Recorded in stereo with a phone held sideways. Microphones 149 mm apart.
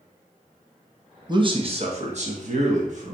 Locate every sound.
1.3 s a man speaking: 30° right (ahead or behind), 0.8 m; by 3.1 s 55° right (ahead or behind), 1.5 m